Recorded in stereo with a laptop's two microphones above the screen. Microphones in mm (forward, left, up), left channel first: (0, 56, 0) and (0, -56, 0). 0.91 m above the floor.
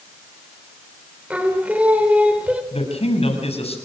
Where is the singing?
10° right (ahead or behind), 4 m.